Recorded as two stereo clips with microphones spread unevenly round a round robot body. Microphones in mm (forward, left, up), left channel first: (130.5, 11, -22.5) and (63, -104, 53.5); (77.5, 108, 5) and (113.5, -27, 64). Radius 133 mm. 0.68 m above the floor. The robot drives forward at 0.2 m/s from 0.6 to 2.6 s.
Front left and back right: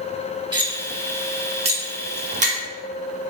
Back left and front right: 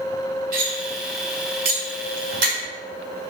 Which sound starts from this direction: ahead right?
Cutlery clinking, at 0.5 s.